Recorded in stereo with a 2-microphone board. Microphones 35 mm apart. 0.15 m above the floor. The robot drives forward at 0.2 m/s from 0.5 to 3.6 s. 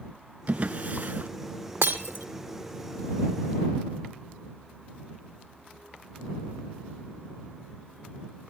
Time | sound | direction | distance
0.5 | a drawer | 45° right (ahead or behind) | 0.5 m
1.8 | breaking glass | 80° right | 1.5 m